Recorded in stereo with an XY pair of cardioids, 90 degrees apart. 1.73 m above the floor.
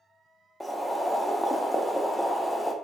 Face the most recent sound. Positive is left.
turn(degrees=10)